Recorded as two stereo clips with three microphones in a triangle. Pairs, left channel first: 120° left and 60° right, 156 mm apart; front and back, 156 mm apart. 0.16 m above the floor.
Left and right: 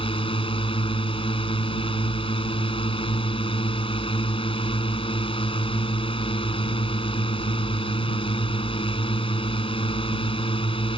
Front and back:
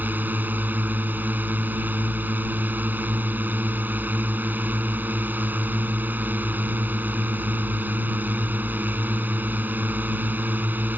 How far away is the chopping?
No chopping in this recording.